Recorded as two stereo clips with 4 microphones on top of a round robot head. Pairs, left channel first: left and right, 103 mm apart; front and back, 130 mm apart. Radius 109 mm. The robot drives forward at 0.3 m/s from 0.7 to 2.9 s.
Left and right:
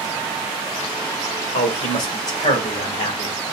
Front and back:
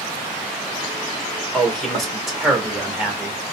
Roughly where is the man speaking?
Left.